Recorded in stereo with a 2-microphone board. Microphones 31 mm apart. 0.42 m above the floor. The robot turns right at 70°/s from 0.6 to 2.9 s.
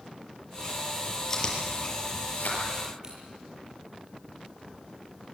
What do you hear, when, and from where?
1.3 s chewing: 15° left (ahead or behind), 6.5 m; by 2.6 s 75° left (ahead or behind), 6.5 m
3.0 s scissors: 30° right (ahead or behind), 9.5 m